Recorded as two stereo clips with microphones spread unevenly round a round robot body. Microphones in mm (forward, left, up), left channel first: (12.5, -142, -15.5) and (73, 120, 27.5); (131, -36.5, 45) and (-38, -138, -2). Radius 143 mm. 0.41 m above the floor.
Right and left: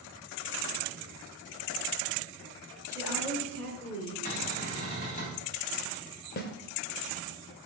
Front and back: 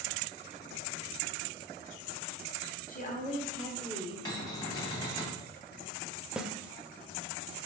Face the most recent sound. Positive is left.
turn(degrees=-80)